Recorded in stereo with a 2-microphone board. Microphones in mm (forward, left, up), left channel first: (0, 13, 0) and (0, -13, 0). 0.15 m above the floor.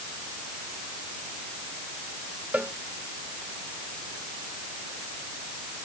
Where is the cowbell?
75° right (ahead or behind).